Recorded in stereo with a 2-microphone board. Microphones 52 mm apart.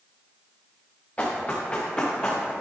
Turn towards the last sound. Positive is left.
turn(degrees=15)  # may be behind; listen again after turning